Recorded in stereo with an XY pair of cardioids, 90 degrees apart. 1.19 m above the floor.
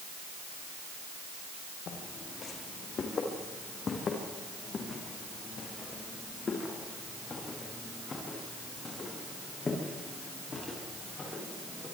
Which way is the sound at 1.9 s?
65° left.